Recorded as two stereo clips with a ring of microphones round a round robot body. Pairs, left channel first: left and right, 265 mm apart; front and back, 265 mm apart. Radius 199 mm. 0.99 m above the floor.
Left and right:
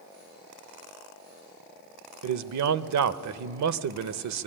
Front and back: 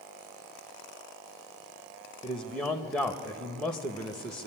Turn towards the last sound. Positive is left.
turn(degrees=-85)